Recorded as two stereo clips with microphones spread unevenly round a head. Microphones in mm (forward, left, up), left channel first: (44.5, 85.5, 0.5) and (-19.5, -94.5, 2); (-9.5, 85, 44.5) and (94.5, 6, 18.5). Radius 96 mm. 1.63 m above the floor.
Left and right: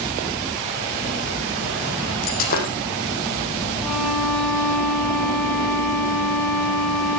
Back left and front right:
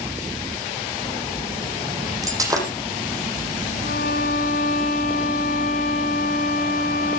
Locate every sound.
2.2 s breaking glass: 30° left, 7 m
3.8 s a violin: 155° left, 5 m